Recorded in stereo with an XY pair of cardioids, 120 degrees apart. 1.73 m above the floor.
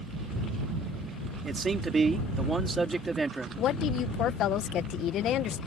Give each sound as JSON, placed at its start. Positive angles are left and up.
{"t": 1.4, "sound": "a man speaking", "azimuth_deg": -30}
{"t": 3.6, "sound": "a woman speaking", "azimuth_deg": 65}